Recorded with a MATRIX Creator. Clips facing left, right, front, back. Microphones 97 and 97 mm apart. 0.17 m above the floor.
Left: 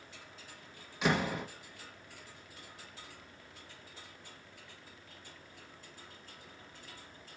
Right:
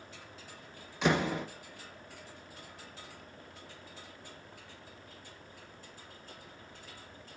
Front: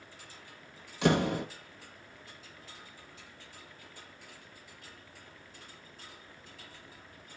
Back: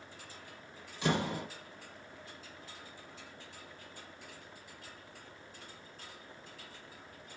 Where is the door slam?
Straight ahead, 2.5 m.